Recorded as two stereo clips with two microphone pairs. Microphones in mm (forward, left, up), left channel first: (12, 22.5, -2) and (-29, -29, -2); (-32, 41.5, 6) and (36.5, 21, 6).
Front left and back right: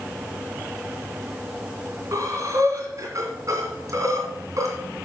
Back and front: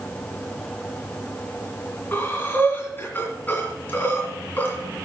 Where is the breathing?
140° right, 2.5 m.